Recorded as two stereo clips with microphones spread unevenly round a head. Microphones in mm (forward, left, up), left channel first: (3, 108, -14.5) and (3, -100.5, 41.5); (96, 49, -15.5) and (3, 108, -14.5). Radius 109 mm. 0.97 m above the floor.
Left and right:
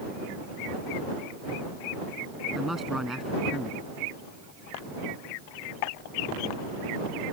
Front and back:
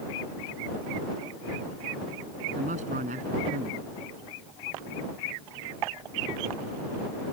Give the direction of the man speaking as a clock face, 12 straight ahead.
6 o'clock.